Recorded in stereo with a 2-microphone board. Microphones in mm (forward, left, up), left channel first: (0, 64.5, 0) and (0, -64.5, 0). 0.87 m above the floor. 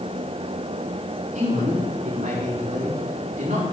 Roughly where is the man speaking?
Right.